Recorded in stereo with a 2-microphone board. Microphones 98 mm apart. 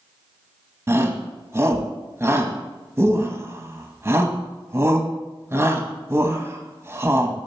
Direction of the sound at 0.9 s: 30° right (ahead or behind).